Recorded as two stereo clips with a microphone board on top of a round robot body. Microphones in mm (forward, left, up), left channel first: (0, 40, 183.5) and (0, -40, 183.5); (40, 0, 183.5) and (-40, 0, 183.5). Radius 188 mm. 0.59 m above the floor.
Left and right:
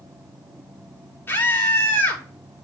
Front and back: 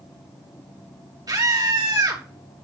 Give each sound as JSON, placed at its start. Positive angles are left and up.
{"t": 1.3, "sound": "a scream", "azimuth_deg": 150, "distance_m": 3.5}